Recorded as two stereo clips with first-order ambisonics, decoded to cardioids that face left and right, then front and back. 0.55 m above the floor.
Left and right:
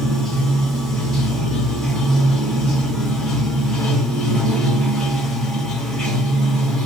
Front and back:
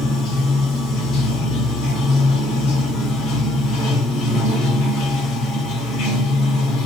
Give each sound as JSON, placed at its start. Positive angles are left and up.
{"t": 0.0, "sound": "running water", "azimuth_deg": 15, "distance_m": 1.4}